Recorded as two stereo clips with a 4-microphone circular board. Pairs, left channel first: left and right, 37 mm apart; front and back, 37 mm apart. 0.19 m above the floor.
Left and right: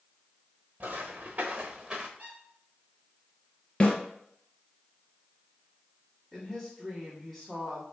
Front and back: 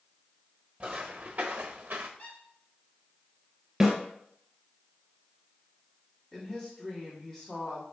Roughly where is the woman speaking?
Ahead.